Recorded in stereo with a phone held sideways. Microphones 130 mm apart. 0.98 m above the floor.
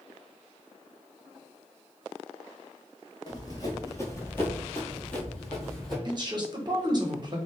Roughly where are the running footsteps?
Left.